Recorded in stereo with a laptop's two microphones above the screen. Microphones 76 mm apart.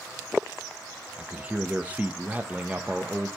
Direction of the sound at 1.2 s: 20° right (ahead or behind).